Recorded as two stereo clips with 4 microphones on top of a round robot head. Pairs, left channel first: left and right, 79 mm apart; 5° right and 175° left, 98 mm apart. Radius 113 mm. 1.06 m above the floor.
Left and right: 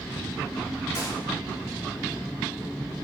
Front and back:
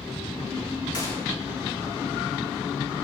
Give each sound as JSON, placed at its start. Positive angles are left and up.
{"t": 0.9, "sound": "a gunshot", "azimuth_deg": 45, "distance_m": 6.5}